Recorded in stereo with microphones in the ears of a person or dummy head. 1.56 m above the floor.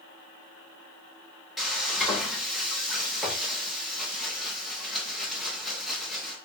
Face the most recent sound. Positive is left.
turn(degrees=0)  # may be behind; listen again after turning